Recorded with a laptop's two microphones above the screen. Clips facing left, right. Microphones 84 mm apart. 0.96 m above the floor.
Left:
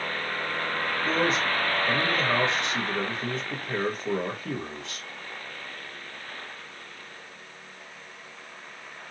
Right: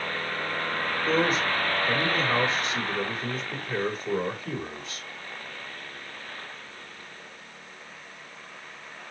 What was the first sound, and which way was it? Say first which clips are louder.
A man speaking: right 1 dB; 80° left.